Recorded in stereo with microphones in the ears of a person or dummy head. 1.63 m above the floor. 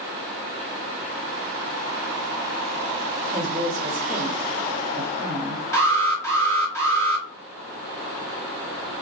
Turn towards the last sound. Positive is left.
turn(degrees=20)  # may be behind; listen again after turning